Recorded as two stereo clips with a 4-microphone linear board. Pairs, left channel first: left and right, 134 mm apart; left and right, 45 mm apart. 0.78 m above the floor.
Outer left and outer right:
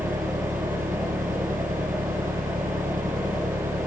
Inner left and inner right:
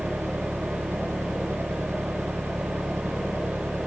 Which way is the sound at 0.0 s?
80° right.